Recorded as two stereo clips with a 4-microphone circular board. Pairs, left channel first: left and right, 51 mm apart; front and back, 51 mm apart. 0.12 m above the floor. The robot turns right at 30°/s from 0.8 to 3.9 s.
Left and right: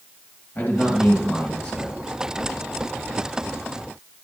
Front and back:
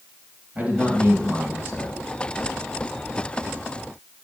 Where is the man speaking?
140° left, 2.5 m; by 2.0 s 175° left, 2.5 m.